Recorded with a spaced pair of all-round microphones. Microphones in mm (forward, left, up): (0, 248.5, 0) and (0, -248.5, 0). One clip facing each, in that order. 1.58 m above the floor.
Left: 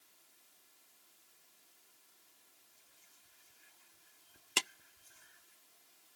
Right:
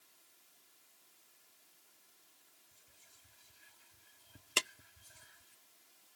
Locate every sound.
2.7 s whispering: 70° right (ahead or behind)
4.6 s a clap: 5° left (ahead or behind)